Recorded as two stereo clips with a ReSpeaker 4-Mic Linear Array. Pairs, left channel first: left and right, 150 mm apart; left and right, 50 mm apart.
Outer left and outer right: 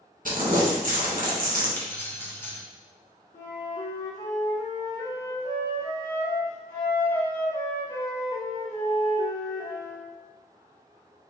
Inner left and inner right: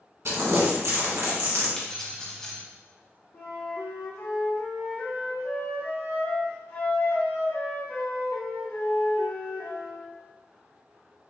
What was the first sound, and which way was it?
Crumpling, 65° right (ahead or behind).